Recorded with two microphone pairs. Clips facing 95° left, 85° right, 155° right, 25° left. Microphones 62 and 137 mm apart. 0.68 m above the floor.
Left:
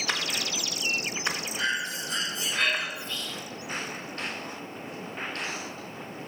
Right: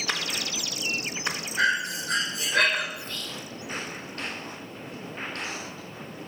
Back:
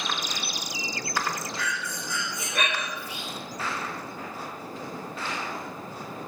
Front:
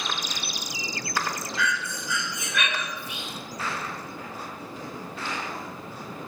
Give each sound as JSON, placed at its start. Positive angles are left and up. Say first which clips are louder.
{"t": 1.6, "sound": "breathing", "louder": "right 8 dB, front 3 dB", "azimuth_deg": -105, "distance_m": 2.5}
{"t": 3.0, "sound": "whispering", "louder": "left 1 dB, back 1 dB", "azimuth_deg": -45, "distance_m": 2.5}